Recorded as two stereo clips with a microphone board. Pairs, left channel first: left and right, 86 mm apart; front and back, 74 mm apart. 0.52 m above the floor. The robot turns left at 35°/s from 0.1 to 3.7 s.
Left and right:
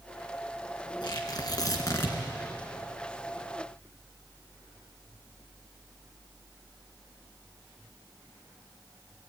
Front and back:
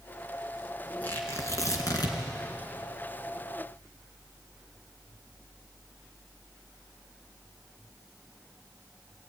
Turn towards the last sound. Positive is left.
turn(degrees=-25)